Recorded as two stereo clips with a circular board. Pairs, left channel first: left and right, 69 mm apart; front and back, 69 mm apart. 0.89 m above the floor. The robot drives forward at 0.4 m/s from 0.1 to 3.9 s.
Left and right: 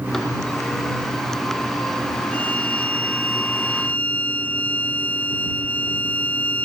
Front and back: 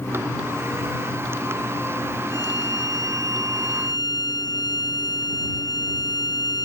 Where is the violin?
20° left.